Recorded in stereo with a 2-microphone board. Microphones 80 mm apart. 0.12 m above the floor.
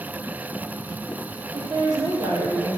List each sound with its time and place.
1.5 s a woman speaking: 55° right (ahead or behind), 4.5 m; by 2.8 s 45° right (ahead or behind), 4 m